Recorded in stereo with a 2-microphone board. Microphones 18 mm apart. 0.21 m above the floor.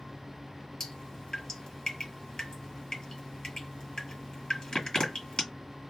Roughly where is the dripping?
Left.